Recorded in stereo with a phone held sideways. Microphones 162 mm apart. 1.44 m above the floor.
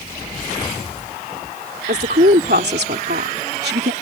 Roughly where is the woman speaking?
Right.